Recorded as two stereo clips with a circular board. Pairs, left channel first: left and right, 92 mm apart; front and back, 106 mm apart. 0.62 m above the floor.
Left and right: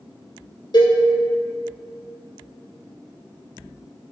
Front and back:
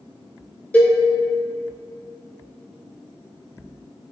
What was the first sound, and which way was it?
A cowbell, 75° left.